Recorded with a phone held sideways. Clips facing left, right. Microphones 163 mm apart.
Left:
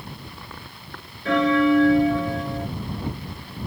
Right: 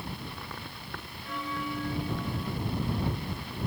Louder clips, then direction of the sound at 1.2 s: Left 18 dB; 90° left.